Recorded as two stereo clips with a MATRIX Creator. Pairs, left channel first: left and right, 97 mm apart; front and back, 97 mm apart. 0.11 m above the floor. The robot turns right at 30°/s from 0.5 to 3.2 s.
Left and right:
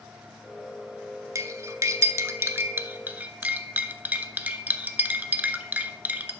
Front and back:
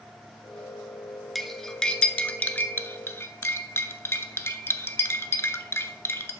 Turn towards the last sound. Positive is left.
turn(degrees=-35)